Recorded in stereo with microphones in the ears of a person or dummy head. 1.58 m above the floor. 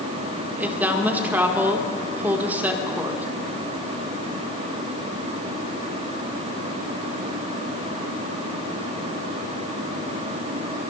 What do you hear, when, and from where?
0.6 s a woman speaking: 10° right (ahead or behind), 1.3 m